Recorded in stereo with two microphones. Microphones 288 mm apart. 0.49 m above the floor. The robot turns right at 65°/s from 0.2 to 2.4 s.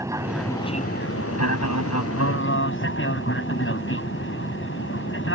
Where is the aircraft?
10° right; by 5.3 s 130° left.